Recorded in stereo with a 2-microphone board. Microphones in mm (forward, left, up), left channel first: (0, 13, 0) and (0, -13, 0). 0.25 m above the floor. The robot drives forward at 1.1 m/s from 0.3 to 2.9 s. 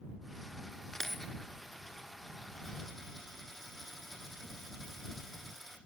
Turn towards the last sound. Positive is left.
turn(degrees=5)  # may be behind; listen again after turning